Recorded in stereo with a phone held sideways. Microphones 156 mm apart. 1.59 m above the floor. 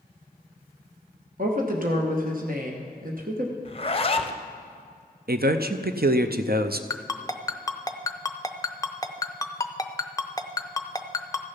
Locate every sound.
1.4 s a woman speaking: 60° right (ahead or behind), 1.0 m
3.6 s a zipper: 35° left (ahead or behind), 0.6 m
5.3 s a man speaking: 70° right (ahead or behind), 0.5 m
6.9 s a ringtone: 20° left (ahead or behind), 0.5 m